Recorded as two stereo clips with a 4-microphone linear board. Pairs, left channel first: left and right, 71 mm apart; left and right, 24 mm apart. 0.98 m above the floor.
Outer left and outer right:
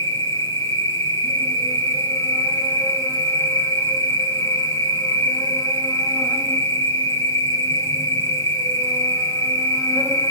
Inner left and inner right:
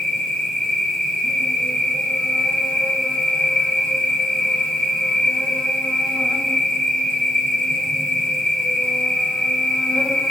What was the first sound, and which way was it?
An insect, 55° left (ahead or behind).